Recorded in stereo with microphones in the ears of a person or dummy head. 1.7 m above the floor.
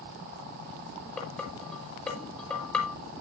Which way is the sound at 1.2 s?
5° left (ahead or behind).